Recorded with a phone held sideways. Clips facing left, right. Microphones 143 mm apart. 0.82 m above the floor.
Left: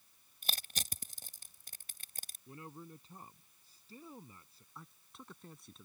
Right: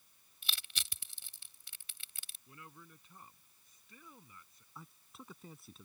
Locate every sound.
0.4 s crushing: 45° left (ahead or behind)
2.5 s a man speaking: 30° left (ahead or behind)
4.8 s a man speaking: centre (ahead or behind)